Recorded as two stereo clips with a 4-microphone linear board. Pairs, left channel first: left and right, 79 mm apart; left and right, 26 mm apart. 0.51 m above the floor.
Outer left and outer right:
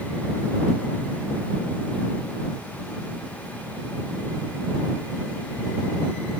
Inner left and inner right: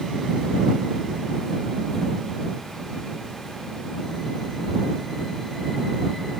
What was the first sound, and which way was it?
Only background noise.